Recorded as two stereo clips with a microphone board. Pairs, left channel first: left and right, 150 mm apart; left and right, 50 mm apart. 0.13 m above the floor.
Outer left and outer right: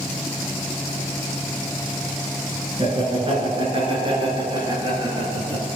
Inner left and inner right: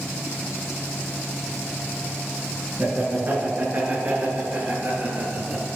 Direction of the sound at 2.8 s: 40° right (ahead or behind).